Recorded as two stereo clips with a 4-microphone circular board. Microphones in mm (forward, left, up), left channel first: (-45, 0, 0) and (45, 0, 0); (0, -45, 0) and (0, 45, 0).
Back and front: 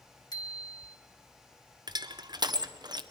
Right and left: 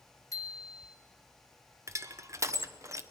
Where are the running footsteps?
No running footsteps in this recording.